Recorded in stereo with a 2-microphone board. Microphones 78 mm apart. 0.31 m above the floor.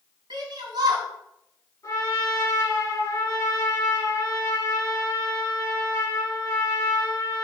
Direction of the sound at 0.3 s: 65° right (ahead or behind).